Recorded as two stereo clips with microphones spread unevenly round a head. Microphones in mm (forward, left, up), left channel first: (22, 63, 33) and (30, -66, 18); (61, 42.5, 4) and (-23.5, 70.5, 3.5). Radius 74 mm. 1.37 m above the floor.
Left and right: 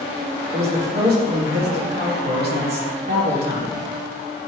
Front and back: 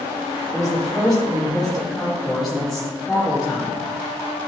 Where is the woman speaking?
110° right, 2 m.